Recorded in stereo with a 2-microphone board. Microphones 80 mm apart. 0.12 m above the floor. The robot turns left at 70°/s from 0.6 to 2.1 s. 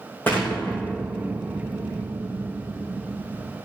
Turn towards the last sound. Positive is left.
turn(degrees=-80)